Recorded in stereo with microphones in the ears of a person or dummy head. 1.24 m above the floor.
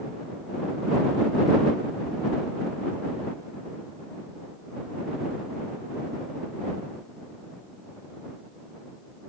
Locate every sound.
Only background noise.